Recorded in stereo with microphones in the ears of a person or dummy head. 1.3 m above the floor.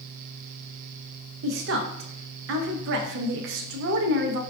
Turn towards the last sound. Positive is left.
turn(degrees=-65)  # may be behind; listen again after turning